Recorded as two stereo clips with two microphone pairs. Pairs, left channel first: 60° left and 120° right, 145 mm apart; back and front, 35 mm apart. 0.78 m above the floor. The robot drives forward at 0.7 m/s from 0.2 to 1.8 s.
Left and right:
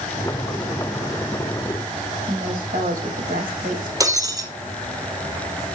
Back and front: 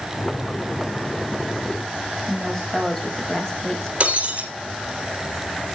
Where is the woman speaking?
105° right, 4.5 m.